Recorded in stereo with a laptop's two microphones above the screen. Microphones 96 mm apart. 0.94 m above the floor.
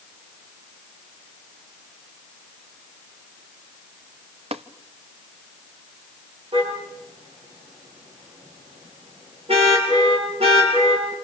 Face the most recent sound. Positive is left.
turn(degrees=-70)  # may be behind; listen again after turning